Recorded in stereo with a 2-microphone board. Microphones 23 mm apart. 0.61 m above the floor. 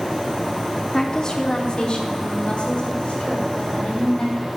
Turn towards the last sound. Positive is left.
turn(degrees=60)  # may be behind; listen again after turning